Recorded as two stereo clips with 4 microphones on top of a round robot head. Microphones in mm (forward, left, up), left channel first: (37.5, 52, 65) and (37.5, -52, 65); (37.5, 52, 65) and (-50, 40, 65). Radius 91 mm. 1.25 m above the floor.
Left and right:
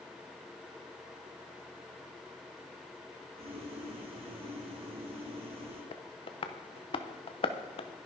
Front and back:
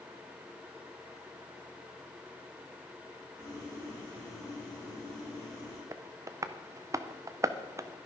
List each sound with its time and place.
3.4 s boiling: 60° right, 3.5 m
5.9 s tapping: 130° left, 0.9 m